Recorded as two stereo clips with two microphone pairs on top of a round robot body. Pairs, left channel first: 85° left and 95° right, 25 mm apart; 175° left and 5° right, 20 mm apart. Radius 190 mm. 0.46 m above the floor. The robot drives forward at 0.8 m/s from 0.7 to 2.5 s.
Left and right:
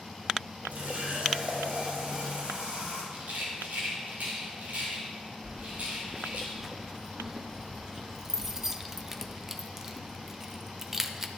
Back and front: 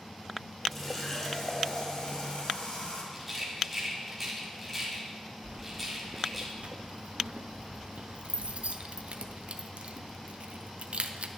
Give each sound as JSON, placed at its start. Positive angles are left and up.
{"t": 0.7, "sound": "a running tap", "azimuth_deg": -95, "distance_m": 1.7}
{"t": 3.1, "sound": "a rattle", "azimuth_deg": -85, "distance_m": 2.0}
{"t": 5.4, "sound": "keys jangling", "azimuth_deg": -15, "distance_m": 0.7}